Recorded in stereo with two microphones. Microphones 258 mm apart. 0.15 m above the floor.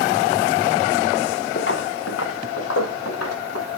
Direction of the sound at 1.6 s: 45° left (ahead or behind).